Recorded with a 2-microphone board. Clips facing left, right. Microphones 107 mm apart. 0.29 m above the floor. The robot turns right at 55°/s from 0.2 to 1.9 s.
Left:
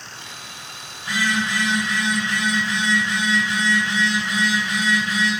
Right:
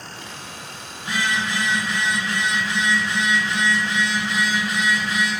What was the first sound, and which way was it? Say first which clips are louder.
A phone buzzing: left 1 dB; 25° right (ahead or behind).